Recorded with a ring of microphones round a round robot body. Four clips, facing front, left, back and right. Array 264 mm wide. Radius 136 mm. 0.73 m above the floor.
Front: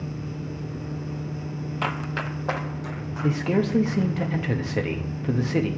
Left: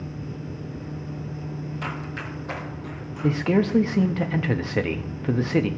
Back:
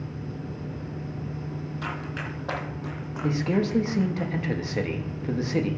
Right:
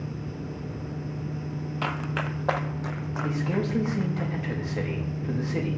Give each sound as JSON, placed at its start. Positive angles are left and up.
{"t": 1.8, "sound": "running footsteps", "azimuth_deg": -25, "distance_m": 0.9}
{"t": 3.2, "sound": "a man speaking", "azimuth_deg": 75, "distance_m": 1.0}